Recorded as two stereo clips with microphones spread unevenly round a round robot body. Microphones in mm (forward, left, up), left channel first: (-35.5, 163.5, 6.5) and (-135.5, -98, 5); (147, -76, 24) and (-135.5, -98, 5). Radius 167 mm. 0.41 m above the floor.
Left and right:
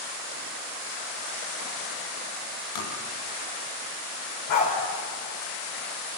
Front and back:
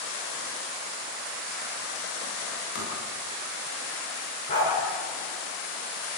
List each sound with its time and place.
2.8 s tapping: 65° left, 5 m
4.5 s a dog barking: 75° left, 8.5 m